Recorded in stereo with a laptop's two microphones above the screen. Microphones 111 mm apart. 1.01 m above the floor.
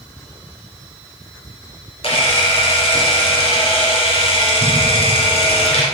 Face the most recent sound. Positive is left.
turn(degrees=55)  # may be behind; listen again after turning